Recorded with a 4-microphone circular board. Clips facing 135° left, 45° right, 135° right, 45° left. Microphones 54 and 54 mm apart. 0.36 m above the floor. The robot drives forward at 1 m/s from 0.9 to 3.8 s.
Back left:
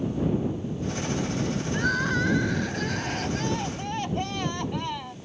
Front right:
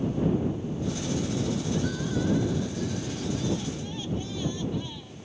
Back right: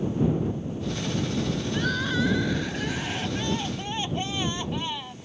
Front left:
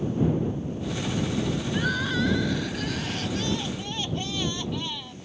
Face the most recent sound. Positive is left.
turn(degrees=160)